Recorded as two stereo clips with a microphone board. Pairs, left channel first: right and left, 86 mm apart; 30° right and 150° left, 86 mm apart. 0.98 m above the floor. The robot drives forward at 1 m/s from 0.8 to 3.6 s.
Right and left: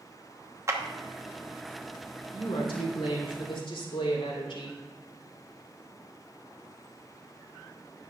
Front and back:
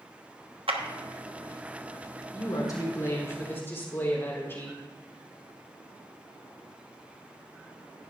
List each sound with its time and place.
0.7 s a clap: 145° left, 1.0 m
2.3 s a woman speaking: 70° right, 3 m; by 4.8 s 95° right, 3 m